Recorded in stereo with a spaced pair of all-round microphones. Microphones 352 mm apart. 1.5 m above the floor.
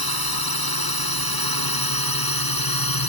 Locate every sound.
0.0 s a drone: 85° left; by 3.1 s 75° left (ahead or behind)